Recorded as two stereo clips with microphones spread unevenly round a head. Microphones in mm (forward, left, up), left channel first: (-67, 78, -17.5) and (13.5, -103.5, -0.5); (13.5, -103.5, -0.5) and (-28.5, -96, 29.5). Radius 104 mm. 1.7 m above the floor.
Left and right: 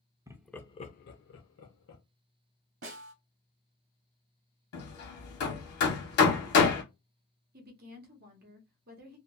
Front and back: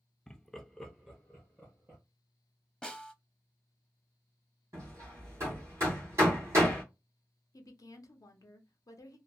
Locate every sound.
0.3 s laughter: 125° right, 0.6 m; by 2.0 s 110° left, 1.1 m
2.8 s a snare drum: 90° right, 0.9 m
4.7 s hammering: 125° left, 1.2 m
7.5 s a woman speaking: 30° right, 0.8 m